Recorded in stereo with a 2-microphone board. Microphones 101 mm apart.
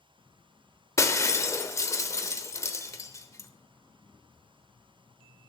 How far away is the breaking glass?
About 0.8 m.